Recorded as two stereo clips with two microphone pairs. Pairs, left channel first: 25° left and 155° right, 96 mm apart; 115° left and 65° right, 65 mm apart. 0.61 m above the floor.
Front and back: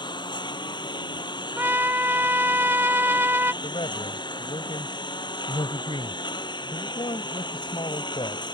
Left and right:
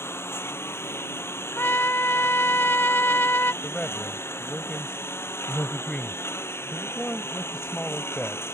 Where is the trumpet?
150° left.